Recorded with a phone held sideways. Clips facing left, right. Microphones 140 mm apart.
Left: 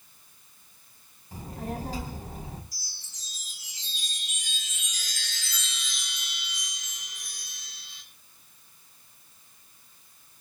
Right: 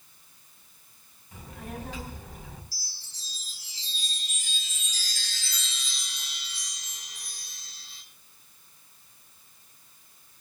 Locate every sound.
1.3 s a child speaking: 40° left (ahead or behind), 4 m
2.7 s a chime: 35° right (ahead or behind), 6 m